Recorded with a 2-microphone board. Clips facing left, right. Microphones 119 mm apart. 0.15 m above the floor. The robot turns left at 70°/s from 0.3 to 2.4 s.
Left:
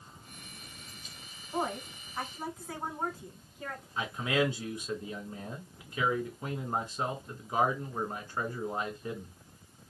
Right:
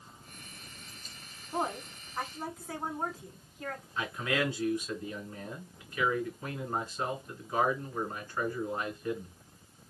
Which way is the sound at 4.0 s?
20° left (ahead or behind).